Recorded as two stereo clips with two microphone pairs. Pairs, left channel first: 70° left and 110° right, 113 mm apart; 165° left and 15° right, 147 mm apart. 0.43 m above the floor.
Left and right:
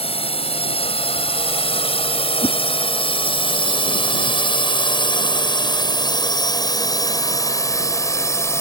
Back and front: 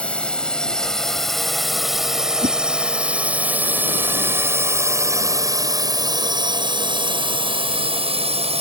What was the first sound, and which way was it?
A drone, 85° left.